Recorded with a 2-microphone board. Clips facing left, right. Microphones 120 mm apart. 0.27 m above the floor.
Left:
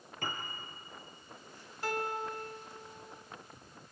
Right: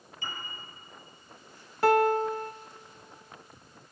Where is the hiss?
No hiss in this recording.